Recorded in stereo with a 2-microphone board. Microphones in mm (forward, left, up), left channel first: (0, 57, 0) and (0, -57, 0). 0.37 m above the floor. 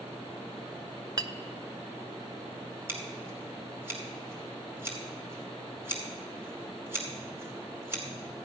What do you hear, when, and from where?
1.2 s a clink: 35° right (ahead or behind), 0.6 m
2.9 s scissors: 20° right (ahead or behind), 2.5 m